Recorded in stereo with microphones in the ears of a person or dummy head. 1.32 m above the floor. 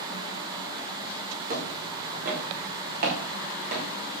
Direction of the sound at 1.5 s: 45° right (ahead or behind).